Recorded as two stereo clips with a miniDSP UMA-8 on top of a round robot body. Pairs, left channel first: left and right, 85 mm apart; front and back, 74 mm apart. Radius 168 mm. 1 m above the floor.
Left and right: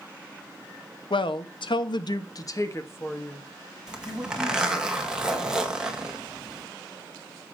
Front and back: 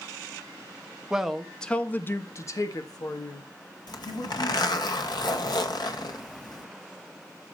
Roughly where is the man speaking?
Left.